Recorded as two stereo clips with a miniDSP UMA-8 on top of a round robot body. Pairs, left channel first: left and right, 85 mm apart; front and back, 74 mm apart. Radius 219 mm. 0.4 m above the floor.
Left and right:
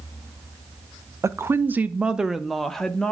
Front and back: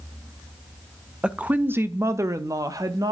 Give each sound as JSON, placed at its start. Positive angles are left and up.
{"t": 1.2, "sound": "a woman speaking", "azimuth_deg": -110, "distance_m": 0.9}